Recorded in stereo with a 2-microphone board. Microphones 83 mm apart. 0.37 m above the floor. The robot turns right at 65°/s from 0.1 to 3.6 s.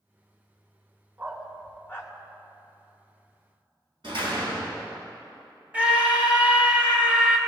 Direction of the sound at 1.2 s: 20° right (ahead or behind).